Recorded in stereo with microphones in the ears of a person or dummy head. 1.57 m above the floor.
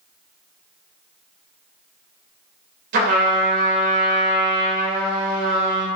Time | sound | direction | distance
2.9 | a trumpet | 50° right (ahead or behind) | 2.5 m